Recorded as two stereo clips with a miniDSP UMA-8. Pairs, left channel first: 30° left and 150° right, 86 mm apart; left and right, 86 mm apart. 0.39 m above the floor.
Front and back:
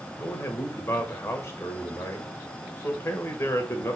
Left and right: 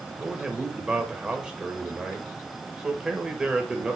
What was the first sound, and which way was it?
A man speaking, 10° right.